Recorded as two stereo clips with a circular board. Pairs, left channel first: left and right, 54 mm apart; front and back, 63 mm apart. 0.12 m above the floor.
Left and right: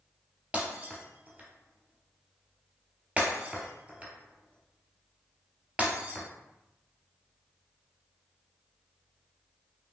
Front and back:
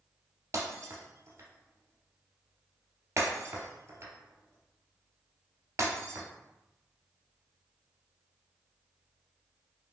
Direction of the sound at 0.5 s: 150° right.